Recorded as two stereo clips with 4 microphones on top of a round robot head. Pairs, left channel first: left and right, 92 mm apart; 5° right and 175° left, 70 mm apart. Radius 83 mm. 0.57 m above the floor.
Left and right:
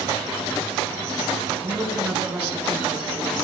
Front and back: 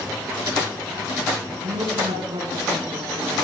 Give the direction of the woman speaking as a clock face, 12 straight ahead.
6 o'clock.